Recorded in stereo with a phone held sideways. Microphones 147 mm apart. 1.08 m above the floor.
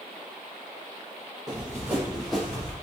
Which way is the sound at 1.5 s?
30° right (ahead or behind).